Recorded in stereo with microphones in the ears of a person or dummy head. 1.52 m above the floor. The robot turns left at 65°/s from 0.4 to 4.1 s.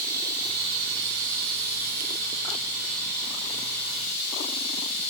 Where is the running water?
15° right, 0.8 m; by 5.1 s 100° left, 0.8 m.